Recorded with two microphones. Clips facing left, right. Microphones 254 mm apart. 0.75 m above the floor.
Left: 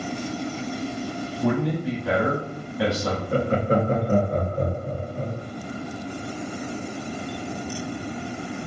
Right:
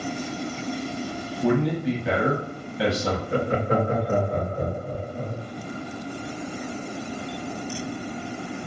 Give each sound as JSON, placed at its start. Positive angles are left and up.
{"t": 1.4, "sound": "a man speaking", "side_deg": -5, "distance_m": 1.3}
{"t": 3.3, "sound": "laughter", "side_deg": 35, "distance_m": 0.8}